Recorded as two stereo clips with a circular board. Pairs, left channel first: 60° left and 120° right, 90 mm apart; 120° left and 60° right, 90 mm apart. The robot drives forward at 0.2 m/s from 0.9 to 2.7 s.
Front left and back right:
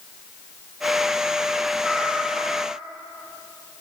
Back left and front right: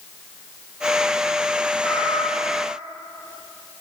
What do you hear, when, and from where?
1.8 s a cat meowing: 160° left, 1.7 m; by 2.8 s 165° left, 1.8 m